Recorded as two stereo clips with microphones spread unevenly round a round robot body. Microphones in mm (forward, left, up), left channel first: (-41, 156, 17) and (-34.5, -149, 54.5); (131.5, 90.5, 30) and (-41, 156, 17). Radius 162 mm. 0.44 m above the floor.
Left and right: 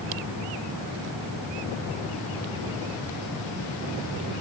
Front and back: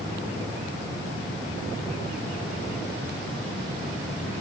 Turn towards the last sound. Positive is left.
No sound to turn to.